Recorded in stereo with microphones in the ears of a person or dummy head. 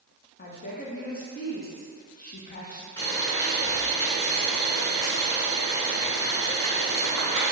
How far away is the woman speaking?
About 0.7 m.